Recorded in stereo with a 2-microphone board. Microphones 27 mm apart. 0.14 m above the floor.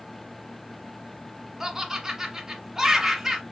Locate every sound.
1.6 s laughter: 10° right (ahead or behind), 1.1 m